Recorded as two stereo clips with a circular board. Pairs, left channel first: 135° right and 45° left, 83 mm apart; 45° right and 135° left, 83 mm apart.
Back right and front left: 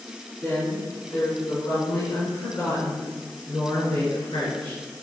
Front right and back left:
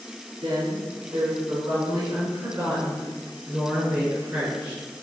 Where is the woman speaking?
165° left, 3 m; by 4.8 s 155° right, 4.5 m.